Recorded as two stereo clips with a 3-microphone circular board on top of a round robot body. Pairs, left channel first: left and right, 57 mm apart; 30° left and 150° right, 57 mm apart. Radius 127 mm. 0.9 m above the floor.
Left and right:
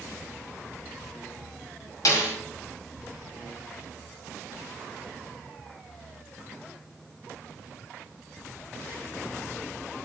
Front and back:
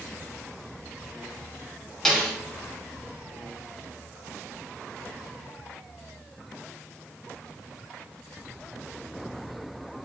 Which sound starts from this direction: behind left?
A snare drum, at 2.0 s.